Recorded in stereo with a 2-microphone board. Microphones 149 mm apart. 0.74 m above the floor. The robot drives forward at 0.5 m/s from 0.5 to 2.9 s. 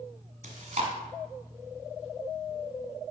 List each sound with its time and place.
0.4 s chewing: 55° right (ahead or behind), 1.4 m; by 0.9 s 50° right (ahead or behind), 1.5 m